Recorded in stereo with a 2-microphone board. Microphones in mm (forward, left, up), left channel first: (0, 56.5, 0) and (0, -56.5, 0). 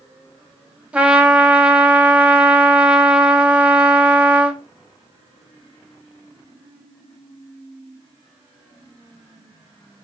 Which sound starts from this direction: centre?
A trumpet, at 0.9 s.